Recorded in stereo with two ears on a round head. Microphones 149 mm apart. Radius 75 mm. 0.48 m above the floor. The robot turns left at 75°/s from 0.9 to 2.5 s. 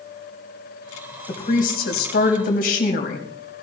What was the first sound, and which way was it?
A woman speaking, 145° left.